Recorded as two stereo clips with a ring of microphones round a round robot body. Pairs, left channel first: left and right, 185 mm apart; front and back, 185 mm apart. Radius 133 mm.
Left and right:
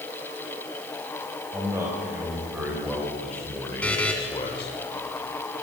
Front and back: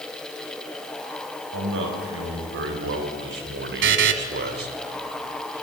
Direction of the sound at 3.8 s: 175° left.